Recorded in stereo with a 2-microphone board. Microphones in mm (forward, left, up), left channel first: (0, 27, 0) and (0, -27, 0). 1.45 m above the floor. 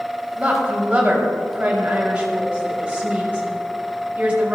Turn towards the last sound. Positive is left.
turn(degrees=-25)  # may be behind; listen again after turning